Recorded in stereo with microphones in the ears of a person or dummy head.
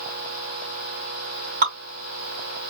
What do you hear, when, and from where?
1.6 s dripping: 60° right (ahead or behind), 3 m